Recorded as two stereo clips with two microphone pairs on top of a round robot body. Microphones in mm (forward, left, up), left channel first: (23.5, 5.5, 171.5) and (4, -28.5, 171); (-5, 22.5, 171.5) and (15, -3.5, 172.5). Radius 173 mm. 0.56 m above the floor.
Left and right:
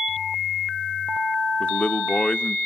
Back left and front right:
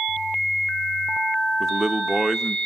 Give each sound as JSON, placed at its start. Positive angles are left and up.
{"t": 1.6, "sound": "a man speaking", "azimuth_deg": 35, "distance_m": 1.0}